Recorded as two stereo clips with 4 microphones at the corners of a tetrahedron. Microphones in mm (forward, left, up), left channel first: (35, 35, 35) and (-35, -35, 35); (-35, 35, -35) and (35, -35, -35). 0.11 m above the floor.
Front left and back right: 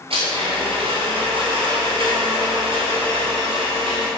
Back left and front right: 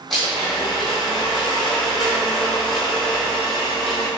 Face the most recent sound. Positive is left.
turn(degrees=-135)